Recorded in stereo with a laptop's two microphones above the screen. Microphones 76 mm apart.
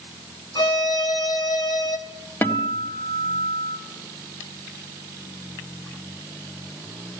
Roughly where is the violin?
Left.